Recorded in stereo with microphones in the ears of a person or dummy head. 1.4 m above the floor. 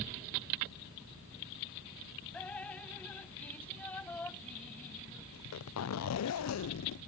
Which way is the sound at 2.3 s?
10° left (ahead or behind).